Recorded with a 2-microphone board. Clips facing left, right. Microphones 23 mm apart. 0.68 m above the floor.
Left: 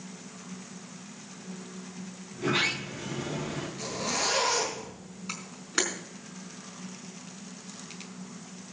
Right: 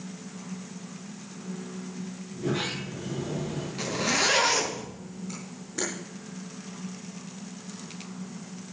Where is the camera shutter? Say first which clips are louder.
Left 10 dB; 80° left, 4.5 m.